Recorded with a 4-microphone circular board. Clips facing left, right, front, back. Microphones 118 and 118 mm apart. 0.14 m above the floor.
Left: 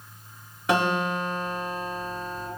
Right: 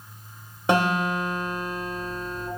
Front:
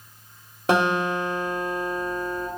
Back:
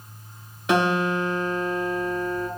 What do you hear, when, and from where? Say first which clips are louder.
0.7 s a guitar: right 2 dB, even; 35° right, 1.2 m